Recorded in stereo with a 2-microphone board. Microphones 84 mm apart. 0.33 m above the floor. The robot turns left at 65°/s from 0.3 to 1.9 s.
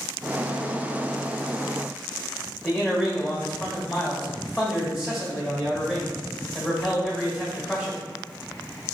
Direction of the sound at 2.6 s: Centre (ahead or behind).